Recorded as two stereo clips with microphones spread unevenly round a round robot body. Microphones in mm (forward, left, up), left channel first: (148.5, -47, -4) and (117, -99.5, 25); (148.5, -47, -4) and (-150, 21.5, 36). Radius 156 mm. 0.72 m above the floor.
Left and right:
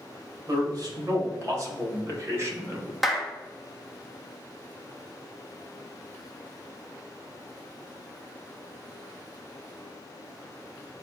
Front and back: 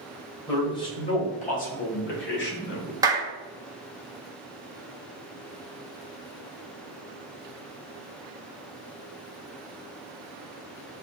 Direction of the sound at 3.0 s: 85° left.